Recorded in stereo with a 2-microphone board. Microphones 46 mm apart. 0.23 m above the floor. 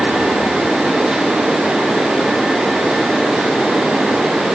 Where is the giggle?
I don't hear a giggle.